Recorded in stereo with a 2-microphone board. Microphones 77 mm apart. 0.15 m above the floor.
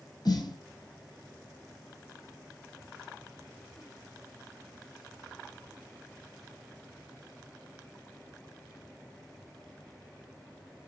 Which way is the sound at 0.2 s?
65° left (ahead or behind).